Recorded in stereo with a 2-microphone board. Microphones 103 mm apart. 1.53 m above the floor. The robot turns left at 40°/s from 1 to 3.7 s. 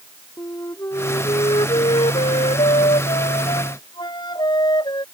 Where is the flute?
150° left; by 5.0 s 40° left.